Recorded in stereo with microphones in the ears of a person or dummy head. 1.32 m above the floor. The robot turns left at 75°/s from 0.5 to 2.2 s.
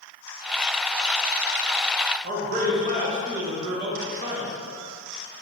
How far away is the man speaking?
About 0.8 m.